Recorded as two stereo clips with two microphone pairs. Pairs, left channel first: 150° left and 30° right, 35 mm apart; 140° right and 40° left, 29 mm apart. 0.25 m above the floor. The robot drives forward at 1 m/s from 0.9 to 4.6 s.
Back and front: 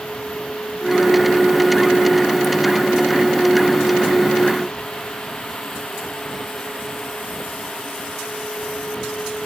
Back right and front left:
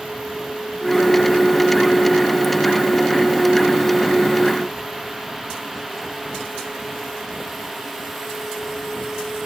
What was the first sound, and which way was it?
Only background noise.